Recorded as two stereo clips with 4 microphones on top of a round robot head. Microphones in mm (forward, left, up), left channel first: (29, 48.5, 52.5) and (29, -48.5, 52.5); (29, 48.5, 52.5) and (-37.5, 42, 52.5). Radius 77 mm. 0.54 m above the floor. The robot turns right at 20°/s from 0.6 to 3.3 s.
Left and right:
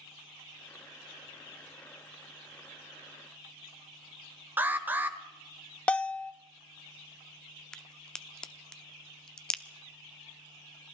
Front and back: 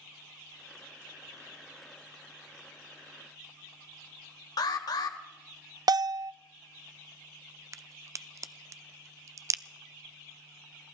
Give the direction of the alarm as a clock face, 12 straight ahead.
1 o'clock.